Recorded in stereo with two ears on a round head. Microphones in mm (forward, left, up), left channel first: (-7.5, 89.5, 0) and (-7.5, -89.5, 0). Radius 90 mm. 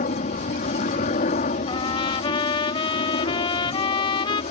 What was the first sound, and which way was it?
A helicopter, 40° left (ahead or behind).